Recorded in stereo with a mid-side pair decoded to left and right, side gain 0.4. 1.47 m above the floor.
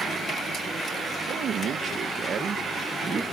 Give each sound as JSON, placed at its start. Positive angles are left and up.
{"t": 1.3, "sound": "a man speaking", "azimuth_deg": -65}